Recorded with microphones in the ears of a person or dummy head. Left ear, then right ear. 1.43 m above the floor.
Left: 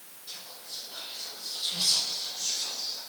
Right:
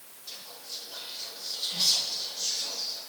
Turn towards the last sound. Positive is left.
turn(degrees=-10)  # may be behind; listen again after turning